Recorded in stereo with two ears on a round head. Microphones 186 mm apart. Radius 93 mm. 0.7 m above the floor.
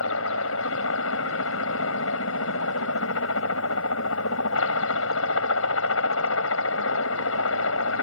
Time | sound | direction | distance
0.0 | a helicopter | 70° left (ahead or behind) | ?